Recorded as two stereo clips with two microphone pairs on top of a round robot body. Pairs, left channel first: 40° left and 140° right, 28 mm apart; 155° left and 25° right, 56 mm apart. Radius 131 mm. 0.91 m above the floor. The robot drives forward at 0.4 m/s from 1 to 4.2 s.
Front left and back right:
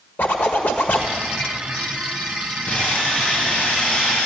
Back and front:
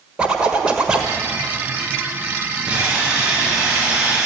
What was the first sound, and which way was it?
A zipper, 55° left.